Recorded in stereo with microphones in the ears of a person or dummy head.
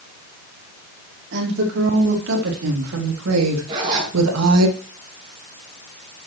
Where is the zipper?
30° right (ahead or behind), 5 m.